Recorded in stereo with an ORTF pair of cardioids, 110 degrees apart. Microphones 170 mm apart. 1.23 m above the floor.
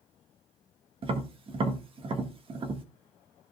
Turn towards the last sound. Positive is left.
turn(degrees=-35)